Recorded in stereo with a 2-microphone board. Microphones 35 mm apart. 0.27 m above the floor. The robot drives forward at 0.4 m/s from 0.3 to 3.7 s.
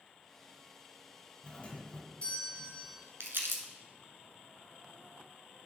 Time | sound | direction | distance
1.4 | a doorbell | 30° left (ahead or behind) | 2.5 m
3.2 | crumpling | 80° right | 1.2 m